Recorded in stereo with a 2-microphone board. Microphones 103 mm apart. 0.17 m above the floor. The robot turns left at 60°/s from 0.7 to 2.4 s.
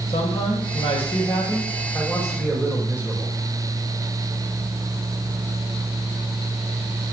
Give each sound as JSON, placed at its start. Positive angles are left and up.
{"t": 0.1, "sound": "a man speaking", "azimuth_deg": 85, "distance_m": 7.0}